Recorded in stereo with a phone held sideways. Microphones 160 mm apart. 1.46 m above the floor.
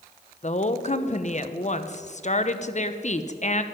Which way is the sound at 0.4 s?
45° left (ahead or behind).